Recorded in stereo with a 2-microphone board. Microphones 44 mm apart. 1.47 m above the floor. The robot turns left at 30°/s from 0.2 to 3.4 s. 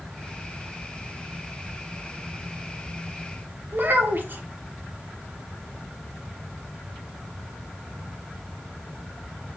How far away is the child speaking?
About 0.6 m.